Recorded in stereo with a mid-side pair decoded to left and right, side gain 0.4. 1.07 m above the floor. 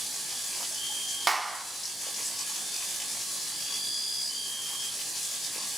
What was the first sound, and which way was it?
A clap, 20° right.